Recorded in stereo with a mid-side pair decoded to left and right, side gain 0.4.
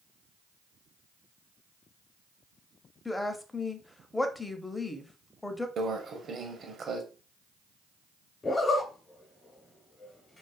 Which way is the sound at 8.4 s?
40° left.